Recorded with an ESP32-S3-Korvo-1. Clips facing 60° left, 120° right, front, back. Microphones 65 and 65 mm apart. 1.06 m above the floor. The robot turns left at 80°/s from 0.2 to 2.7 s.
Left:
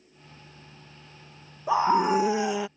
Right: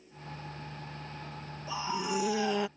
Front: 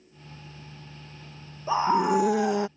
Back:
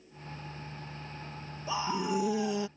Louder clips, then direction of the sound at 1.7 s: Left 12 dB, front 9 dB; 50° left.